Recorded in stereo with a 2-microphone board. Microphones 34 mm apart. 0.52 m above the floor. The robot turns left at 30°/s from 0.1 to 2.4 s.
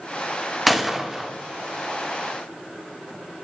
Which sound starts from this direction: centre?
A gunshot, at 0.7 s.